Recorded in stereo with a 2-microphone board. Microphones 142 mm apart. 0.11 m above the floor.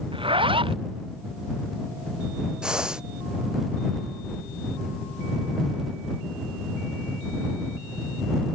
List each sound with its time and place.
0.1 s a zipper: 40° right (ahead or behind)
2.6 s breathing: 5° right (ahead or behind)